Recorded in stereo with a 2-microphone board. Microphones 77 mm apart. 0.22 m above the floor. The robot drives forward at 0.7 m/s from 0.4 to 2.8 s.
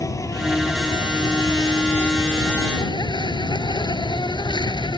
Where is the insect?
45° left (ahead or behind); by 5.0 s 75° left (ahead or behind).